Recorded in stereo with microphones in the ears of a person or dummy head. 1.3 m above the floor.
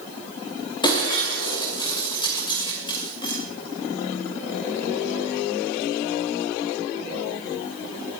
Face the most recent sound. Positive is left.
turn(degrees=25)  # may be behind; listen again after turning